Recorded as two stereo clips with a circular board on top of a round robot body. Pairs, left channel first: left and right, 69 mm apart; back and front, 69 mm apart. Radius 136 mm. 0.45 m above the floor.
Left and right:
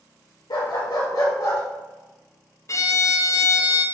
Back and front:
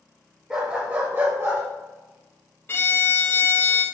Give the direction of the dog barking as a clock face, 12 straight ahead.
9 o'clock.